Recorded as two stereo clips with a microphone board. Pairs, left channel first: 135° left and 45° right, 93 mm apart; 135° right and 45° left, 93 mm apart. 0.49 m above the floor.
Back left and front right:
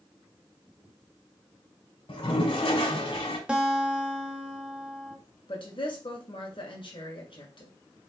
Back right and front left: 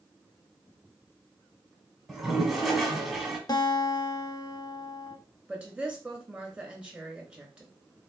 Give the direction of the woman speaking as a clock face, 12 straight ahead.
8 o'clock.